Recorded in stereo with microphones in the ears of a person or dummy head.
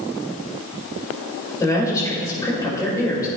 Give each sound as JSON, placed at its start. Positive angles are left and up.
{"t": 1.6, "sound": "a woman speaking", "side_deg": 20, "distance_m": 4.5}